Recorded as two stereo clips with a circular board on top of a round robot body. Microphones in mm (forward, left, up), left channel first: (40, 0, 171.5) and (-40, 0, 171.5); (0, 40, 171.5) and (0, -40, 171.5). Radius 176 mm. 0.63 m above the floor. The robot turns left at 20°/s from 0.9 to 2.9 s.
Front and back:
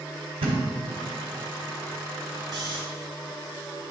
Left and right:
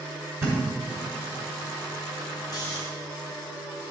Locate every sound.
0.4 s a thud: 155° right, 1.0 m
2.5 s snoring: 140° left, 0.7 m; by 2.8 s 135° left, 0.7 m